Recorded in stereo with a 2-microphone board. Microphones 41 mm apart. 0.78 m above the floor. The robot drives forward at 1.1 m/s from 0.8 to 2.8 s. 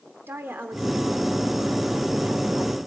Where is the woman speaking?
70° right (ahead or behind), 2.5 m; by 2.8 s 45° right (ahead or behind), 3 m.